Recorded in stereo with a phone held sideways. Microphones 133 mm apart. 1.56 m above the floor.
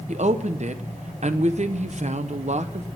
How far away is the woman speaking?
About 1.0 m.